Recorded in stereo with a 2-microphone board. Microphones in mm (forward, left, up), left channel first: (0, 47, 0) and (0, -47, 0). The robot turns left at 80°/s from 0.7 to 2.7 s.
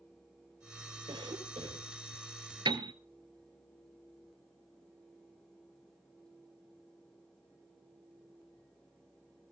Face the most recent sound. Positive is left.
turn(degrees=-60)  # may be behind; listen again after turning